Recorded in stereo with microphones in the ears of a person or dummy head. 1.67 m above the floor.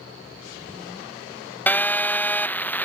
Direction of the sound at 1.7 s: 10° left (ahead or behind).